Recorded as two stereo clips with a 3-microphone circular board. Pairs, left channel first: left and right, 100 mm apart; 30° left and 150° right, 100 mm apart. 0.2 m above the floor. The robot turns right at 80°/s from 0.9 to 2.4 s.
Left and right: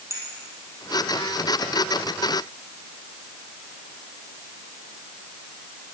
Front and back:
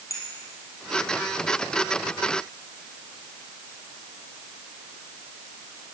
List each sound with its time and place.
0.1 s a clink: 30° right, 3.5 m